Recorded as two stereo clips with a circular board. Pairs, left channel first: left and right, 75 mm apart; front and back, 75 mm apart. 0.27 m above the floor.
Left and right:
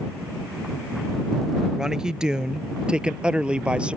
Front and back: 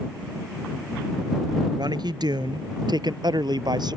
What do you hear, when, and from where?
1.8 s a man speaking: 175° right; by 4.0 s 165° right